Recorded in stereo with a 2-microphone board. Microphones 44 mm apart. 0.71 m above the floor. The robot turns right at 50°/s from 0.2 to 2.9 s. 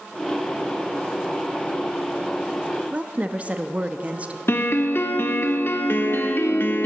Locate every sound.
2.9 s a woman speaking: 30° right (ahead or behind), 0.7 m
4.5 s a piano: 55° left (ahead or behind), 1.2 m